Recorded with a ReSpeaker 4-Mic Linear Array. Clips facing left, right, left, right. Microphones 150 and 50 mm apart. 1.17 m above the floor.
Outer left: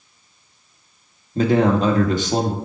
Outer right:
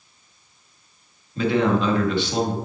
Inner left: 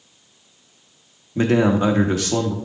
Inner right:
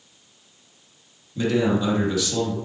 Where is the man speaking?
40° left (ahead or behind), 1.4 m.